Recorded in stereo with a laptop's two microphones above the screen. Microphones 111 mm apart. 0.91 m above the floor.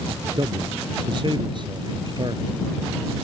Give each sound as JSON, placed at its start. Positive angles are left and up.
{"t": 0.4, "sound": "a man speaking", "side_deg": -45}